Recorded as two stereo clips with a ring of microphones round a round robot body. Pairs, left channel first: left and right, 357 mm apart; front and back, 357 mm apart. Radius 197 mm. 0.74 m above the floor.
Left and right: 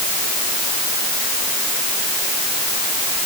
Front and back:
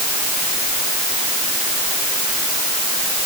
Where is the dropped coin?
I don't hear a dropped coin.